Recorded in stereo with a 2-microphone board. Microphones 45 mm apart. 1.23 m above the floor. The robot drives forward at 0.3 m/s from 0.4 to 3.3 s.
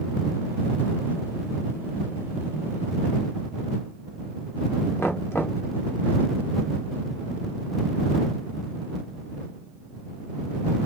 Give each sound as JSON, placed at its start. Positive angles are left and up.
{"t": 5.0, "sound": "knocking", "side_deg": 60, "distance_m": 1.0}